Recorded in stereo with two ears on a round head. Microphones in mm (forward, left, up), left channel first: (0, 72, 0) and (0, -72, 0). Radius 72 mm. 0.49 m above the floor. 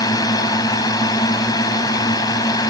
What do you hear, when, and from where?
0.0 s a drone: 25° left (ahead or behind)